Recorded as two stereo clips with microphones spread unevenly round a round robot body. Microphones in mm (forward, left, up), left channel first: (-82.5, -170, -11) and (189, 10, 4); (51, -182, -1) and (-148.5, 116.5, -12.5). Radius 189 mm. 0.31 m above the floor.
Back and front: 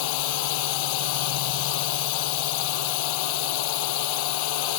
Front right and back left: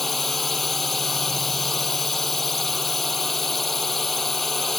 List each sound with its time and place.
0.0 s a drone: 145° right